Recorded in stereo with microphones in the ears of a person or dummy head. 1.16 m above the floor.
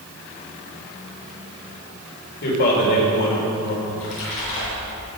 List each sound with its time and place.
2.4 s a man speaking: 55° left (ahead or behind), 4 m
3.9 s a splash: 80° left, 5 m